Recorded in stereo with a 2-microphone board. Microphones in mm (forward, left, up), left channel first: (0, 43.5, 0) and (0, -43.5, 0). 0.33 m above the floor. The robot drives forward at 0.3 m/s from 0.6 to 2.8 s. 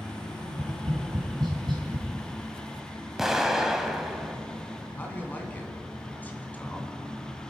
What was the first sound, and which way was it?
Tapping, 55° right (ahead or behind).